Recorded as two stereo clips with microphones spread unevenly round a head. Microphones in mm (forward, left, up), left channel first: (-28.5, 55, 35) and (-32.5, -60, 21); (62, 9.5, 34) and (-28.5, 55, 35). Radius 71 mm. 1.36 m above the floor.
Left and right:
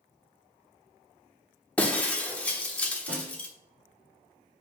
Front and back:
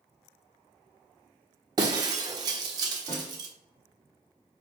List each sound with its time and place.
1.8 s breaking glass: 145° left, 1.1 m
3.1 s a snare drum: 90° right, 2.5 m